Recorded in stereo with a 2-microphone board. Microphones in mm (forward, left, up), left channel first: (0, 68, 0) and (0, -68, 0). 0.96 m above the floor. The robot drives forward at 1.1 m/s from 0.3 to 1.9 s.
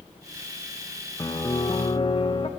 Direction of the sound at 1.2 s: 25° left (ahead or behind).